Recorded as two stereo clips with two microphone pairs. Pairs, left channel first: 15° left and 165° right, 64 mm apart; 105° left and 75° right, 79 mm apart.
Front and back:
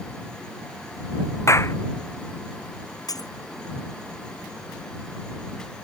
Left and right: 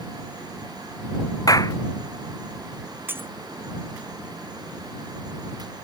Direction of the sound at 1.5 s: 60° left.